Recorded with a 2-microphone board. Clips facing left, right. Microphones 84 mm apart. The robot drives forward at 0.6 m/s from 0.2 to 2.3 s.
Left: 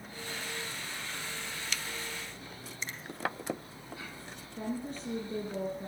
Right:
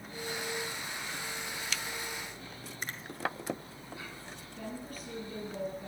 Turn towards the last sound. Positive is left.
turn(degrees=40)  # may be behind; listen again after turning